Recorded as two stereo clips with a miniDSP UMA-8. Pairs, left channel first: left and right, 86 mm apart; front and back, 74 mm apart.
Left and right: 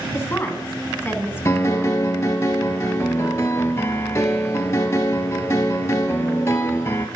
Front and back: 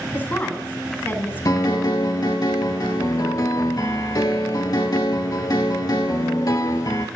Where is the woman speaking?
45° left, 1.2 m.